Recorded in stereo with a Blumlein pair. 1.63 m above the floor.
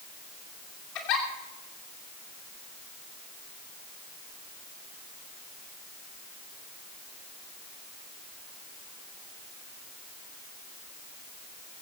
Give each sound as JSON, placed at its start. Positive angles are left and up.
{"t": 0.9, "sound": "a giggle", "azimuth_deg": 40, "distance_m": 3.0}